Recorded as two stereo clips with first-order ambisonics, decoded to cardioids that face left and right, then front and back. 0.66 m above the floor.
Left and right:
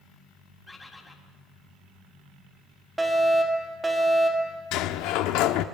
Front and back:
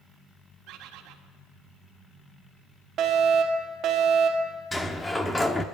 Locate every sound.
0.7 s a bird: 165° left, 1.7 m
3.0 s a fire alarm: 170° right, 2 m
4.7 s a sliding door: 85° left, 0.9 m